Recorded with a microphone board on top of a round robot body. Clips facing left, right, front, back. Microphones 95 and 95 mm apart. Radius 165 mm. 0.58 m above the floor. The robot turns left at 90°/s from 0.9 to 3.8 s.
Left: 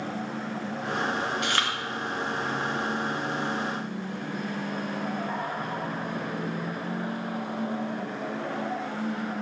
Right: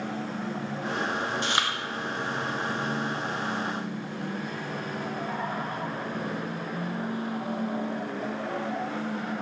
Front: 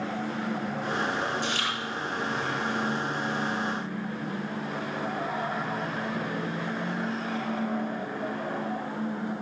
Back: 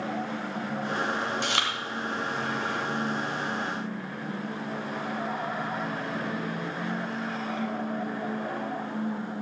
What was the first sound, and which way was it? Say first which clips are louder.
Chewing: even, back 1 dB; 150° right.